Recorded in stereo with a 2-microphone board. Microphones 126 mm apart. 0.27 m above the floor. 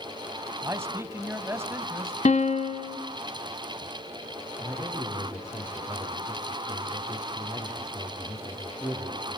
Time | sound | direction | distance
0.6 | a man speaking | 20° right (ahead or behind) | 1.5 m
2.2 | a piano | 60° left (ahead or behind) | 1.2 m
4.6 | a man speaking | 25° left (ahead or behind) | 6 m